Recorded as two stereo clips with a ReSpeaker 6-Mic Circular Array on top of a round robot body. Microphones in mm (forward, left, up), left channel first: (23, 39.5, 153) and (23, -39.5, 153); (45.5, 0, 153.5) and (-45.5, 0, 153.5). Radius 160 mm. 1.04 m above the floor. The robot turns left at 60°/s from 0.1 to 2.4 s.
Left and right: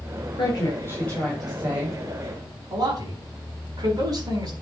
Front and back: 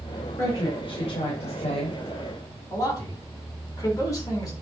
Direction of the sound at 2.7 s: 55° right.